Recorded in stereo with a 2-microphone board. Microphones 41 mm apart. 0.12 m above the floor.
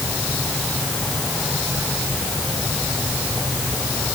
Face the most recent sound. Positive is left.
No sound to turn to.